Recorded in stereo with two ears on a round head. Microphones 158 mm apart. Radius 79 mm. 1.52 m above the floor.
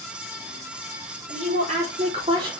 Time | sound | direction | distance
1.3 | a woman speaking | 50° right (ahead or behind) | 4 m